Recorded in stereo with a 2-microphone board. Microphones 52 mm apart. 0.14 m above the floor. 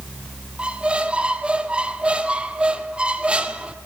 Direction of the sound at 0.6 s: 20° right (ahead or behind).